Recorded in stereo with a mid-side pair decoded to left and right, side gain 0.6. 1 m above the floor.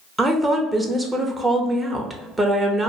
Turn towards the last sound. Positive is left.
turn(degrees=-15)